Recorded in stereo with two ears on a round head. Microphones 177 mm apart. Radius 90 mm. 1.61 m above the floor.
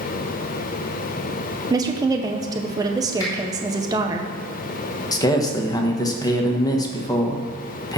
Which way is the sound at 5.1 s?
20° left (ahead or behind).